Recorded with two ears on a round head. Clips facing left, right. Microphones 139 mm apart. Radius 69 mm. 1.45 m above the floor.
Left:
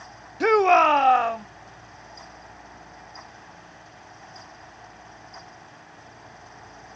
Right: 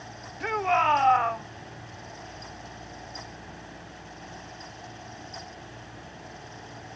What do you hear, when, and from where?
0.4 s a shout: 65° left (ahead or behind); by 1.5 s 35° left (ahead or behind)